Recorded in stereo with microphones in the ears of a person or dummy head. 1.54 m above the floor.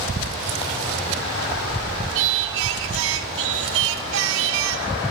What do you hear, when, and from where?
2.1 s singing: 70° right (ahead or behind), 2.5 m